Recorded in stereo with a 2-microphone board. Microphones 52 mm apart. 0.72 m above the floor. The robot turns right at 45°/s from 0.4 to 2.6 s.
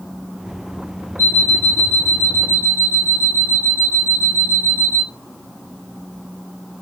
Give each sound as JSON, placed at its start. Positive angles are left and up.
{"t": 1.2, "sound": "an alarm clock", "azimuth_deg": -125, "distance_m": 0.7}